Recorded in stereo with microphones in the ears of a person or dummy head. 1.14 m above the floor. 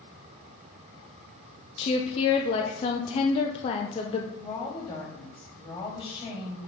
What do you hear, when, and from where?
1.8 s a woman speaking: 30° left (ahead or behind), 0.6 m
4.4 s a woman speaking: 25° left (ahead or behind), 2 m